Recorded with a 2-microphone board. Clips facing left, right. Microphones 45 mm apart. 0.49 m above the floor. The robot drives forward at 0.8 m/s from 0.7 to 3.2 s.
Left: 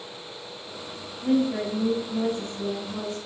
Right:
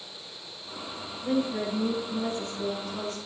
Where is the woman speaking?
30° left (ahead or behind), 3.5 m; by 3.2 s 20° left (ahead or behind), 4.5 m.